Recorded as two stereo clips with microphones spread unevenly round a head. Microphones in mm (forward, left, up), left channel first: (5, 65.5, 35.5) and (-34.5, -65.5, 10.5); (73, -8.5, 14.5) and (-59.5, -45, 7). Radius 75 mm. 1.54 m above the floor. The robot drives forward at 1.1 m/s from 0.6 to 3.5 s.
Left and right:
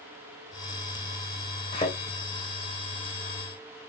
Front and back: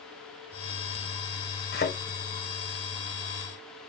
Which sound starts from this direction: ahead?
A thud, at 1.7 s.